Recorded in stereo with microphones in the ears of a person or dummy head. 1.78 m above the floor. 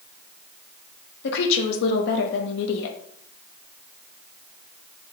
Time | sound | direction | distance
1.2 | a woman speaking | 65° left (ahead or behind) | 0.7 m